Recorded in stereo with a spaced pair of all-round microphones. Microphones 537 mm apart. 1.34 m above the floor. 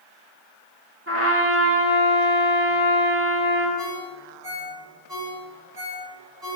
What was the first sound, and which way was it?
A trumpet, 25° right (ahead or behind).